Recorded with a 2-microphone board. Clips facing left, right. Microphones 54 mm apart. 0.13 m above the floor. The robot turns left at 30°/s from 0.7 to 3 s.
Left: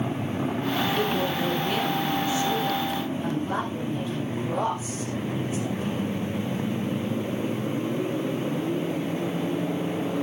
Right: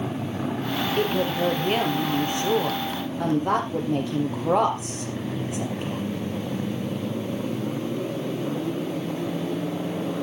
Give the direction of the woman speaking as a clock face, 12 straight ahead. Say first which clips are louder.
Right 2 dB; 1 o'clock.